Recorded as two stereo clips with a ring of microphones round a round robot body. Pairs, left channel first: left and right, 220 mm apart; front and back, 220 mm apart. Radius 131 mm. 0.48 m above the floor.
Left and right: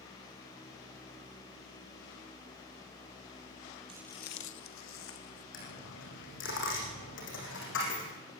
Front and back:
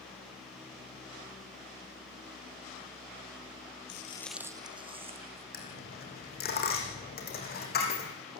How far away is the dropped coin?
About 6.5 m.